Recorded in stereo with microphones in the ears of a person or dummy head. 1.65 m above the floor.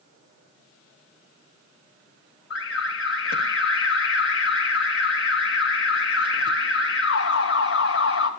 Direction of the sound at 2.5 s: 60° left (ahead or behind).